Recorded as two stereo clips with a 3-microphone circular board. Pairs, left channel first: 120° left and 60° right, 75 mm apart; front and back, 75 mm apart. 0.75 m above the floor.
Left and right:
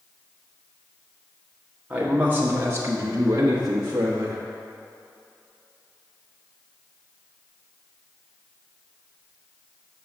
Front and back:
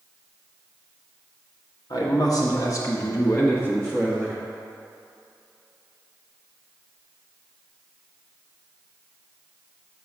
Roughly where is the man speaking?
Ahead.